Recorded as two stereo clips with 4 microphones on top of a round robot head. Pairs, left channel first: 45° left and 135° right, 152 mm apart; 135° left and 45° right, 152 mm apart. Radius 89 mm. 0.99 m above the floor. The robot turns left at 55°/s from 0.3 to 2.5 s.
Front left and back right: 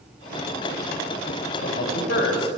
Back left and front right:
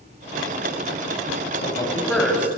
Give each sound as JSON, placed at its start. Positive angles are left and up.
{"t": 1.6, "sound": "a man speaking", "azimuth_deg": 80, "distance_m": 6.5}